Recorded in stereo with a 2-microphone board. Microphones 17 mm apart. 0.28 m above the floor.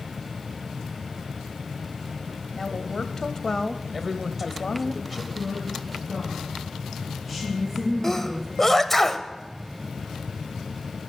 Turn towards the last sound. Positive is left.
turn(degrees=20)  # may be behind; listen again after turning